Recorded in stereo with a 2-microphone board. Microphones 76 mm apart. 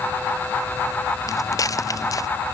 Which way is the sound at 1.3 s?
50° left (ahead or behind).